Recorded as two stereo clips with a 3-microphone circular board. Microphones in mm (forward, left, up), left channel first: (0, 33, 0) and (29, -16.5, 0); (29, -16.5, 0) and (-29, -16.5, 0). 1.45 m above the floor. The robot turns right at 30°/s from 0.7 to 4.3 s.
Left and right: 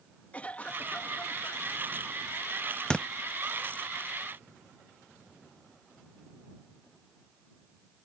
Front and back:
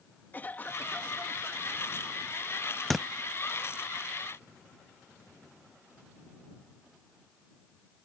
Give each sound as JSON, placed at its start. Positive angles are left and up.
{"t": 0.3, "sound": "a cough", "azimuth_deg": 55}
{"t": 2.9, "sound": "a thud", "azimuth_deg": 80}